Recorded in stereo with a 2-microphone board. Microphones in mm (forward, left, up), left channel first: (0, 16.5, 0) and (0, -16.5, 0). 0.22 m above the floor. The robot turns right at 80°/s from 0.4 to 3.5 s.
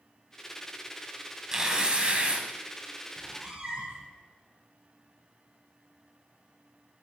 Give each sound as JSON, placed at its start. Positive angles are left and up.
{"t": 1.5, "sound": "tearing paper", "azimuth_deg": -150, "distance_m": 1.5}
{"t": 3.2, "sound": "a cat meowing", "side_deg": -10, "distance_m": 1.6}